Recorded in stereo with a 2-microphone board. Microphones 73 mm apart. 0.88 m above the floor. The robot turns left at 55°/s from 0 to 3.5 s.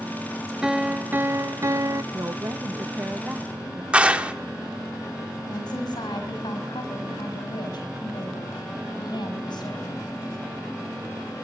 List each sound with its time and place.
0.6 s a piano: 10° right, 0.6 m; by 2.0 s 90° right, 0.6 m
2.1 s a woman speaking: 85° right, 0.6 m; by 3.8 s 160° right, 0.6 m
3.9 s a clap: 15° right (ahead or behind), 1.6 m
5.5 s a woman speaking: 85° left, 5 m